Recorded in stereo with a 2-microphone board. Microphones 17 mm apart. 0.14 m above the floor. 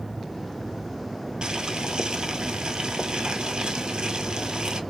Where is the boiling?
60° right (ahead or behind), 0.7 m.